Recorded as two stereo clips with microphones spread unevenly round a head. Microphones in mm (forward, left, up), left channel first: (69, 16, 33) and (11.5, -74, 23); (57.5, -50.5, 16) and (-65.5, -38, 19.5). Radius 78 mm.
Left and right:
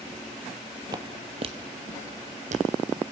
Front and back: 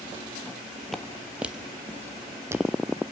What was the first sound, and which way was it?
Footsteps, 95° right.